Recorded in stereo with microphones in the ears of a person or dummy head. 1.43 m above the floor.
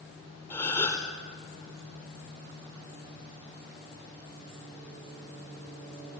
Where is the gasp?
15° left (ahead or behind), 4.5 m.